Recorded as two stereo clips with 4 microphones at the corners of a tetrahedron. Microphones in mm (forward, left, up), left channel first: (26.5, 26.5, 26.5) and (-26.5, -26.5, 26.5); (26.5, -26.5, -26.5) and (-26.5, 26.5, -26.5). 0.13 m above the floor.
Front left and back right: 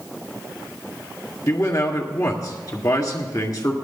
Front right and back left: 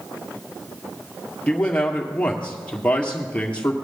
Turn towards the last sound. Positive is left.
turn(degrees=25)